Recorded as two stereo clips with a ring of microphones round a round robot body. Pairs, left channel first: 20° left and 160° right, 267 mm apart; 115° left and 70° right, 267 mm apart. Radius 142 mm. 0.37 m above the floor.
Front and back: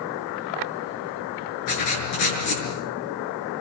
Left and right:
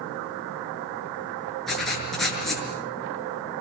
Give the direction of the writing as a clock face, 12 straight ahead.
11 o'clock.